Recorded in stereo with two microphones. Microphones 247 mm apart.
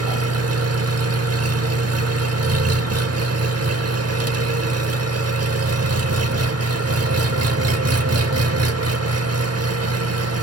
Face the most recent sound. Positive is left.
turn(degrees=-75)  # may be behind; listen again after turning